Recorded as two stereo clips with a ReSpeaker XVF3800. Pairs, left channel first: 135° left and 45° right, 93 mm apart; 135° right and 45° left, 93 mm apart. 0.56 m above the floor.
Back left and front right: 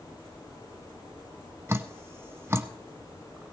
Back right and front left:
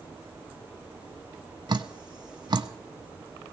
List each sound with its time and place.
1.7 s dripping: 15° left, 0.7 m